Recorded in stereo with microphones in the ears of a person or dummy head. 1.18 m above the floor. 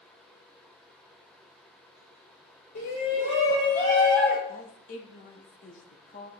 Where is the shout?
50° left (ahead or behind), 1.4 m; by 4.4 s 15° left (ahead or behind), 1.8 m.